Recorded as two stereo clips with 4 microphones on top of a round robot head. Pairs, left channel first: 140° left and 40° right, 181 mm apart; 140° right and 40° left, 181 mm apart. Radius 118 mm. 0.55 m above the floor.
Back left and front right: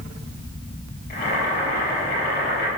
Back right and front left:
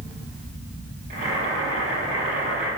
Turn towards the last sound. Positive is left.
turn(degrees=100)